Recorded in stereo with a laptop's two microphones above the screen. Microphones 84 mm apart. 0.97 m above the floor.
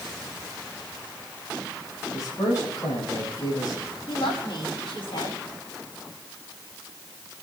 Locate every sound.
2.1 s a man speaking: 50° left (ahead or behind), 8 m
4.1 s a woman speaking: 75° left (ahead or behind), 8.5 m